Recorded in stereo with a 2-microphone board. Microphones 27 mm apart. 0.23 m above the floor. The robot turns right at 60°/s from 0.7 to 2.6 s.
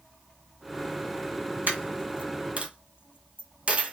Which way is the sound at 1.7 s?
80° right.